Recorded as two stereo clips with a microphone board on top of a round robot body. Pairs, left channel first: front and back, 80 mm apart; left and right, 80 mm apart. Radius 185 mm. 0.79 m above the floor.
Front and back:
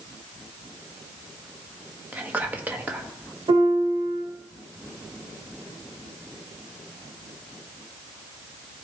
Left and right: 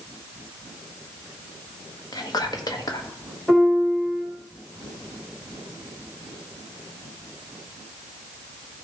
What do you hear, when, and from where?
2.1 s whispering: 115° left, 1.7 m
3.5 s a piano: straight behind, 2 m